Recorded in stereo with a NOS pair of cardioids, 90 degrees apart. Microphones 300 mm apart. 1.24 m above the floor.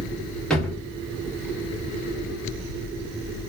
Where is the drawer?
Straight ahead, 1.3 m.